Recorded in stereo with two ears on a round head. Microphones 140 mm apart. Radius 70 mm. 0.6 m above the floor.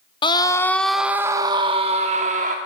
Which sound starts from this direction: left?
A scream, at 0.2 s.